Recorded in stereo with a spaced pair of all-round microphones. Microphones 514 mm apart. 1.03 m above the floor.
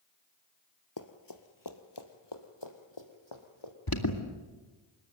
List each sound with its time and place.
1.0 s running footsteps: 35° left (ahead or behind), 1.5 m; by 3.7 s 60° left (ahead or behind), 3 m
3.9 s an alarm: 45° left (ahead or behind), 2 m